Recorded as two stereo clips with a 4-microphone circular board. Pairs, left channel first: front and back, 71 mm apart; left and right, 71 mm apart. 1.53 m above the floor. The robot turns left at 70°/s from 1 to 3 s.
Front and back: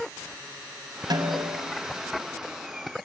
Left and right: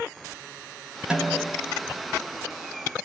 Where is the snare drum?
165° right, 4 m; by 1.6 s 160° left, 4 m.